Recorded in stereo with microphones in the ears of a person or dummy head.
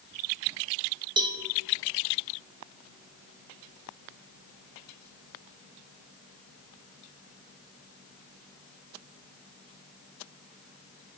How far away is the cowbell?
About 1.2 m.